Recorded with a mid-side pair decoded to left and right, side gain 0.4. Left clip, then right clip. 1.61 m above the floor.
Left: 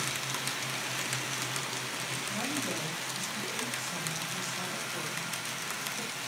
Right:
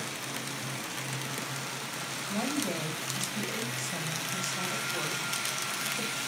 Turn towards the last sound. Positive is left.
turn(degrees=-35)